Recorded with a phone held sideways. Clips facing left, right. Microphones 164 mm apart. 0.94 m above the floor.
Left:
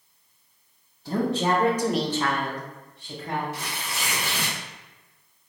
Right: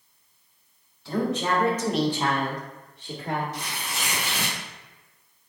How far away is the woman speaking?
About 1.2 m.